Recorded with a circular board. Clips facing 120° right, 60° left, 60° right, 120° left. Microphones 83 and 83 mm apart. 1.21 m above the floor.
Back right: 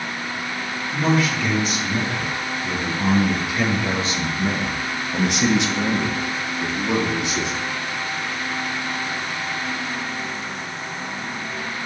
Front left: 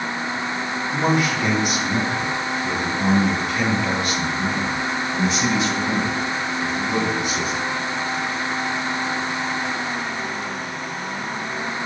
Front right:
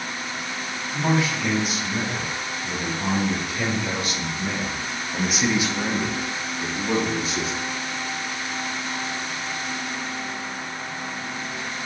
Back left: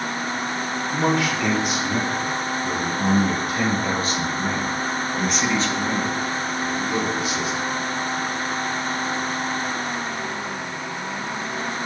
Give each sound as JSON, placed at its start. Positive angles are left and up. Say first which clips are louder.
{"t": 0.9, "sound": "a man speaking", "louder": "even, back left 1 dB", "azimuth_deg": 120, "distance_m": 2.5}